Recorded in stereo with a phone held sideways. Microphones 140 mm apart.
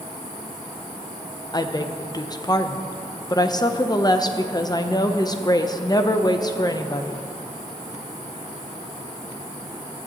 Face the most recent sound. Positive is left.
turn(degrees=30)  # may be behind; listen again after turning